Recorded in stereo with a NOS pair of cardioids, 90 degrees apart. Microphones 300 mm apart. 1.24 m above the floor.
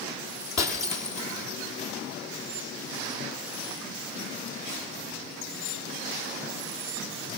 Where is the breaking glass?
60° left, 5.5 m.